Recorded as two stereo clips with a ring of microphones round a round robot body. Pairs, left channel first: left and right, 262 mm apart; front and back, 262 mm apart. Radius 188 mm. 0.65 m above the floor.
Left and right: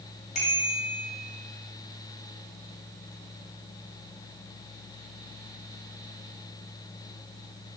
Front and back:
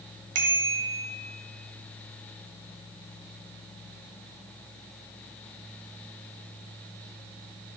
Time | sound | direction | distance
0.3 | a bicycle bell | 160° left | 2.5 m